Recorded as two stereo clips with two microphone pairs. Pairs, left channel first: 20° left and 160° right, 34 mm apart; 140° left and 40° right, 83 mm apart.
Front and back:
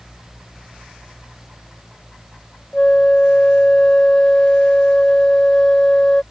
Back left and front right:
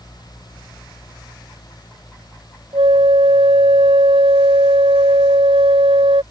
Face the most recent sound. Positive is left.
turn(degrees=-45)